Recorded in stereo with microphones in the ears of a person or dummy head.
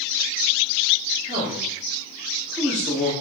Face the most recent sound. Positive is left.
turn(degrees=0)  # may be behind; listen again after turning